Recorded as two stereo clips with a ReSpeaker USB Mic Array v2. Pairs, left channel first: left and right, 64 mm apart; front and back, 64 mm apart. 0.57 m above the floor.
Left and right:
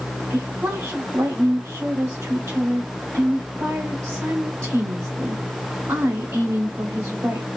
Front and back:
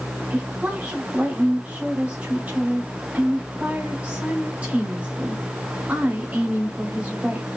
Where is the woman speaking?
125° right, 1.4 m.